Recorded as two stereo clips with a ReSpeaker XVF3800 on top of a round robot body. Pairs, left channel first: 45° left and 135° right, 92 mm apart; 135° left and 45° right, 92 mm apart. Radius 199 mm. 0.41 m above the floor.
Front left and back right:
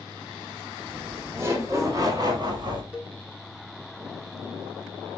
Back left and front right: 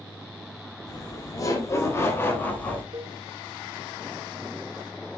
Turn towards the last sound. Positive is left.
turn(degrees=-65)